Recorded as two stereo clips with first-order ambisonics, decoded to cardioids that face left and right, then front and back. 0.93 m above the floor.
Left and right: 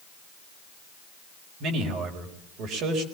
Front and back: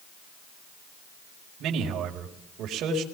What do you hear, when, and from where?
1.6 s a man speaking: 135° right, 4.5 m